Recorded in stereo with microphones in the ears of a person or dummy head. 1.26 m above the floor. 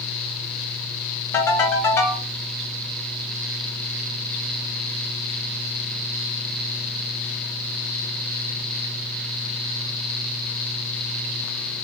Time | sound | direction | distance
1.3 | a ringtone | 15° left (ahead or behind) | 1.2 m